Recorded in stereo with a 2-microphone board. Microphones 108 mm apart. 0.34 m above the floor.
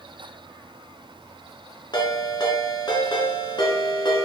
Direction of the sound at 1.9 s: 40° left (ahead or behind).